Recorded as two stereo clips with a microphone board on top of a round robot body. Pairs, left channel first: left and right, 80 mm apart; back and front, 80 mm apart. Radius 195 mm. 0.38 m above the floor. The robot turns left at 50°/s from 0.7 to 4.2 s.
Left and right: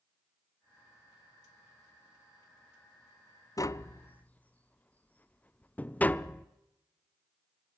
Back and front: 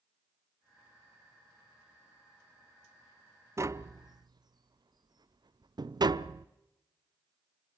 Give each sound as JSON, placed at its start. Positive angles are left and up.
{"t": 3.6, "sound": "tapping", "azimuth_deg": 50, "distance_m": 0.7}